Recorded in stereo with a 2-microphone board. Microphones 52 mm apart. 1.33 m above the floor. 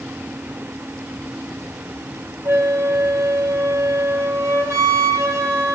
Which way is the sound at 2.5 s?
70° right (ahead or behind).